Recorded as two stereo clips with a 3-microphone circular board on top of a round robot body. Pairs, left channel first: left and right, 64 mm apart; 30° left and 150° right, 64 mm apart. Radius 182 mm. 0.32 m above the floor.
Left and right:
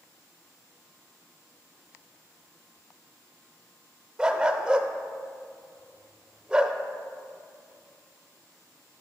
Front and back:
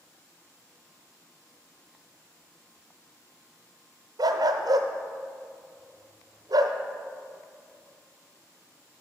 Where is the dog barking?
170° right, 0.5 m.